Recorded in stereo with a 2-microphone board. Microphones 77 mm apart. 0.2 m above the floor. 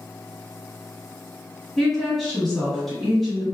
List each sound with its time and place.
1.8 s a woman speaking: centre (ahead or behind), 1.1 m